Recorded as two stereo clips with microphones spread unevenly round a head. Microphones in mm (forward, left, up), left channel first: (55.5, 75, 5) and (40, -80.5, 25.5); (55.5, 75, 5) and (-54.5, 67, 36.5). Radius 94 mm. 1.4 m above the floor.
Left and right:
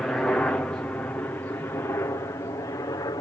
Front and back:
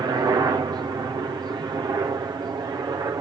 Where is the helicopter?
155° left; by 3.2 s 130° left.